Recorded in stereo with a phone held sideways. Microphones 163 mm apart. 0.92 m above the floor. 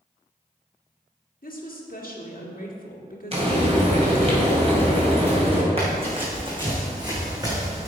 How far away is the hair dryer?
No hair dryer in this recording.